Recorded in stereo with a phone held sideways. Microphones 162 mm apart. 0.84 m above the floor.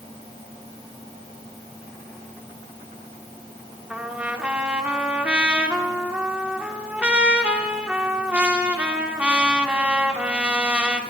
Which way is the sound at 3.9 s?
5° right (ahead or behind).